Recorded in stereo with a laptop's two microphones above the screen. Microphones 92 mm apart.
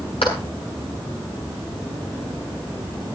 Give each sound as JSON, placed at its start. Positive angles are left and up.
{"t": 0.2, "sound": "a clap", "side_deg": 80, "distance_m": 7.0}